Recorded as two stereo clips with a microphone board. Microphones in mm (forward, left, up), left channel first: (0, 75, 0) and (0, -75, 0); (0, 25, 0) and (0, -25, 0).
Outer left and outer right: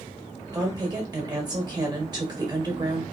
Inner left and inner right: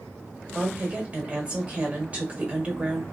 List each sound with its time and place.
0.5 s a woman speaking: 30° right (ahead or behind), 1.5 m